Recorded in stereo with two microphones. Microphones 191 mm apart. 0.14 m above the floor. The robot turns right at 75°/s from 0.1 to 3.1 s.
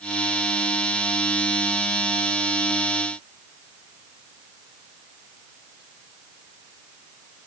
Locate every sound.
Only background noise.